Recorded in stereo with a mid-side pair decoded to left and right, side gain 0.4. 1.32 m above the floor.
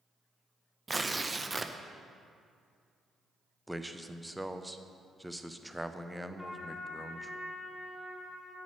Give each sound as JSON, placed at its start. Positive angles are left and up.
{"t": 0.9, "sound": "tearing paper", "azimuth_deg": -20, "distance_m": 0.6}
{"t": 3.7, "sound": "a man speaking", "azimuth_deg": -5, "distance_m": 0.7}
{"t": 6.4, "sound": "a trumpet", "azimuth_deg": 10, "distance_m": 1.8}